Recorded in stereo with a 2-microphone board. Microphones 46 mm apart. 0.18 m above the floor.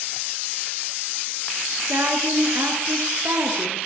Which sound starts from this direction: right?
A woman speaking, at 1.8 s.